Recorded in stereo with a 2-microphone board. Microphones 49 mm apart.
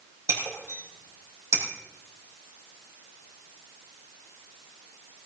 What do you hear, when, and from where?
0.3 s breaking glass: 70° right (ahead or behind), 4.5 m